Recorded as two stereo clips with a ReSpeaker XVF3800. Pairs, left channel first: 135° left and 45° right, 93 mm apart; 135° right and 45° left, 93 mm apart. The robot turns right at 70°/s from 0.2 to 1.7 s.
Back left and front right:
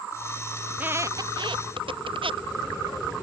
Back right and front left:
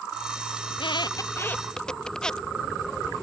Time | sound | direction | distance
0.7 | a squeak | 125° right | ?